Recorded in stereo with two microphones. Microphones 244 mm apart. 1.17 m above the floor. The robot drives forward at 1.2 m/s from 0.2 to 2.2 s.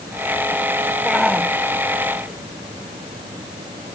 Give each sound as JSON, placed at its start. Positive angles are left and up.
{"t": 1.1, "sound": "a shout", "side_deg": 0}